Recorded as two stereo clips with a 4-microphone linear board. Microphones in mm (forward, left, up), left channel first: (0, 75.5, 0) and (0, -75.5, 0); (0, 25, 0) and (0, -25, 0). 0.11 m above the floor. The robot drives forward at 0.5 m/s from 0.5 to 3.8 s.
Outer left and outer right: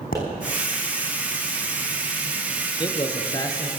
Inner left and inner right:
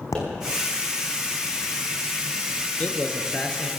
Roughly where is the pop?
Left.